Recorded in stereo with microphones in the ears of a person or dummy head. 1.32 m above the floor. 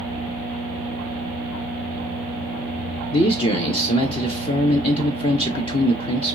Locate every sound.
3.1 s a man speaking: 25° left (ahead or behind), 0.6 m